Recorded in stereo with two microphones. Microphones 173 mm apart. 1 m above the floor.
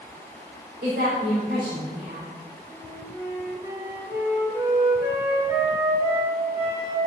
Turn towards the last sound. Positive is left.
turn(degrees=-15)  # may be behind; listen again after turning